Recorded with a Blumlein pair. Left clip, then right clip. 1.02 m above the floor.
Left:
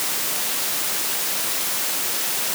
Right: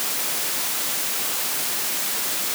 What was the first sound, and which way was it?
Only background noise.